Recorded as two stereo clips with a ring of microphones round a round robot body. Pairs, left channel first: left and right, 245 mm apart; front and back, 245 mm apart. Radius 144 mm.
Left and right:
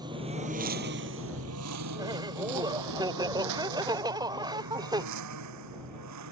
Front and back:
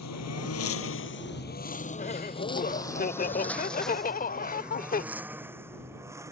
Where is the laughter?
25° right.